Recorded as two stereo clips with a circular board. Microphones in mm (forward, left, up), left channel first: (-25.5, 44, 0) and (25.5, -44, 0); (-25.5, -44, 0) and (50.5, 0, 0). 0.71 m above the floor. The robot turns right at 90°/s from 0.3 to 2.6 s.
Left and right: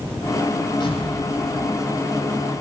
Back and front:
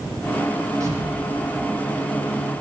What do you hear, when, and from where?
0.8 s an explosion: 80° left, 7.5 m; by 2.2 s 150° right, 7.5 m